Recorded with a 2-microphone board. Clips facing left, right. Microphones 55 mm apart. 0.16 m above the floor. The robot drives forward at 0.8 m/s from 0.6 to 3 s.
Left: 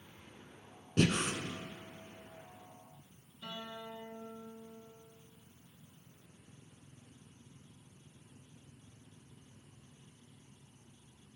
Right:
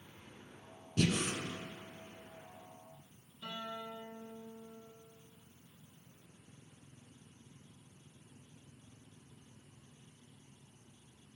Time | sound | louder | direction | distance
1.0 | breathing | left 2 dB | 50° left (ahead or behind) | 0.7 m
3.4 | a guitar | right 2 dB | 20° right (ahead or behind) | 3.5 m